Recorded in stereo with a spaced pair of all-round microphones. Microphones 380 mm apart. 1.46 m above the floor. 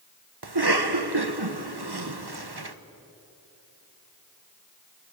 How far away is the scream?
No scream in this recording.